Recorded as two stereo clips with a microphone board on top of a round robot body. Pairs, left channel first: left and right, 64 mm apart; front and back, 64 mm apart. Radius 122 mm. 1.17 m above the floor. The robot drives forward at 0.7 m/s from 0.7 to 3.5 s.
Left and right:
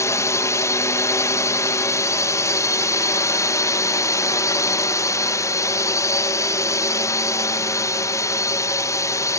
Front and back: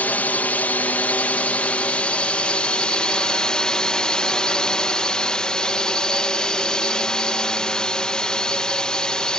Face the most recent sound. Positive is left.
turn(degrees=75)